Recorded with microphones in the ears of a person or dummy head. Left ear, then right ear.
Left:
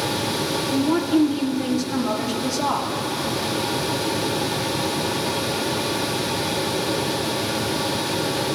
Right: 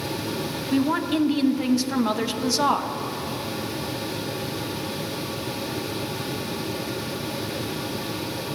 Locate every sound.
0.7 s a woman speaking: 35° right (ahead or behind), 0.6 m